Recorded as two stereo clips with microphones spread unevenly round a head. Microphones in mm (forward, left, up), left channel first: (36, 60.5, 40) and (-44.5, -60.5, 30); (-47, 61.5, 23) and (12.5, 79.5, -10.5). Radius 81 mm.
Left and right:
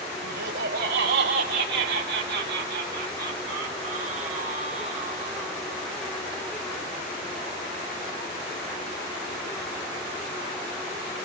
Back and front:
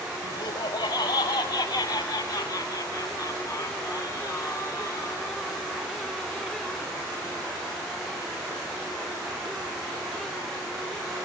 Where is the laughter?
135° right, 4.5 m; by 5.5 s 70° right, 8.5 m.